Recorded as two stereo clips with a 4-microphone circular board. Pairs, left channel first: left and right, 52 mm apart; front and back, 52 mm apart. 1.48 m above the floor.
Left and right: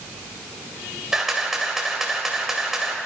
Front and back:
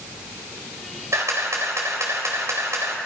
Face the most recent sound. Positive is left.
turn(degrees=-170)